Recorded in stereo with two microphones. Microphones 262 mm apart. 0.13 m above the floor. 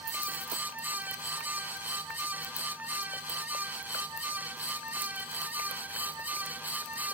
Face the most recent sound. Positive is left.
No sound to turn to.